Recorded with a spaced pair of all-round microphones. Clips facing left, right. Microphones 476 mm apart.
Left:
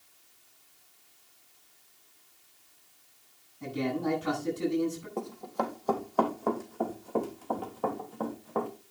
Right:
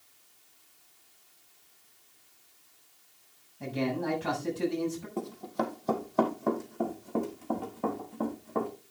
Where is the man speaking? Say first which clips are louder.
Even; 80° right, 8 m.